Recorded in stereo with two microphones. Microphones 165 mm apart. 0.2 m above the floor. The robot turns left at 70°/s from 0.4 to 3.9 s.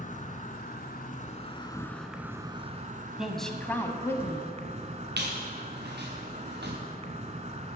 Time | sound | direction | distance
0.0 | an insect | 115° left | 1.1 m
3.2 | a woman speaking | 5° right (ahead or behind) | 1.2 m
5.2 | a squeak | 85° right | 2.5 m